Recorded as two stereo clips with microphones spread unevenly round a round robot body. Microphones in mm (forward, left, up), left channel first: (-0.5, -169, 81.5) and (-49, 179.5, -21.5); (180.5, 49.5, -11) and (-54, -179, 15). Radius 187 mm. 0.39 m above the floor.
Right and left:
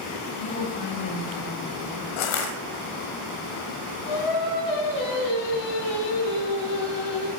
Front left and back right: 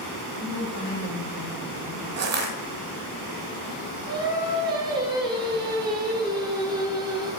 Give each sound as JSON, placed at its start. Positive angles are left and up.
{"t": 0.4, "sound": "a woman speaking", "azimuth_deg": -85, "distance_m": 5.0}
{"t": 2.2, "sound": "crushing", "azimuth_deg": -90, "distance_m": 1.2}
{"t": 4.1, "sound": "singing", "azimuth_deg": -60, "distance_m": 3.0}